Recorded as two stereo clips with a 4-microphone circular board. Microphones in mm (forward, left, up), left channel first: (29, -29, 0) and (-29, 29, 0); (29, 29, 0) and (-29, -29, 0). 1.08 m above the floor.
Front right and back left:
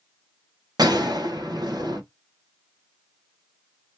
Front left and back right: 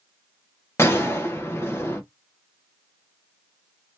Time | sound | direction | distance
0.8 | a gunshot | 105° left | 1.0 m